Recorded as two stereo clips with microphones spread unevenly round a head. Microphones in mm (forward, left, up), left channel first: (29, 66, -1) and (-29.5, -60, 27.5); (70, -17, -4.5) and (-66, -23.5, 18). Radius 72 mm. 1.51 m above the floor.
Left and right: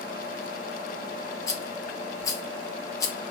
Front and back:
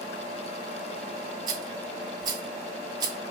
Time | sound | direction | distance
1.5 | a rattle | 135° left | 0.8 m